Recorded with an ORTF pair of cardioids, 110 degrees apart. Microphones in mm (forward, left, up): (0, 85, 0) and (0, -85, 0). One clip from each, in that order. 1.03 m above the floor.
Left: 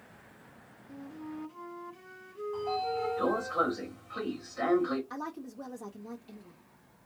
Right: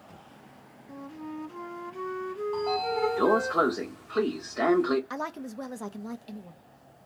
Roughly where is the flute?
Ahead right.